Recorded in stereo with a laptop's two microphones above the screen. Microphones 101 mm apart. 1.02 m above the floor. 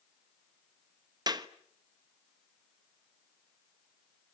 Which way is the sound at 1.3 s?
40° right (ahead or behind).